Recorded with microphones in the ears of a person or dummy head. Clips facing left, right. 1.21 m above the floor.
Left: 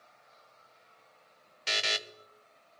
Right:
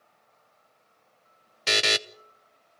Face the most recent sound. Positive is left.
turn(degrees=-60)  # may be behind; listen again after turning